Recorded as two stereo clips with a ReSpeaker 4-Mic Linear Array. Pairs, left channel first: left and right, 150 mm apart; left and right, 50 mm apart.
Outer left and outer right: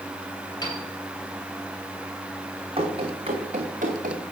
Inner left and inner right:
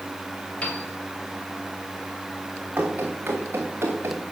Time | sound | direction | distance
0.6 | a piano | 30° left (ahead or behind) | 2.5 m
2.8 | running footsteps | 35° right (ahead or behind) | 2.5 m